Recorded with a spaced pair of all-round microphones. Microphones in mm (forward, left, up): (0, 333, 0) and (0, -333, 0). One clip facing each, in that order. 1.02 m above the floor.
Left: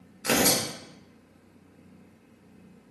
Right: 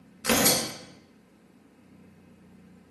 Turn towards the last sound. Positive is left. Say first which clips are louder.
# even
turn(degrees=-35)  # may be behind; listen again after turning